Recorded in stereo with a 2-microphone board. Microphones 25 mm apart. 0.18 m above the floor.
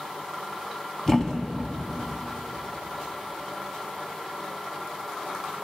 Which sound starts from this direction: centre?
A thud, at 1.1 s.